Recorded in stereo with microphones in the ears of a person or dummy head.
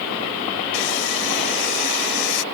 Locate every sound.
0.7 s sawing: 65° left (ahead or behind)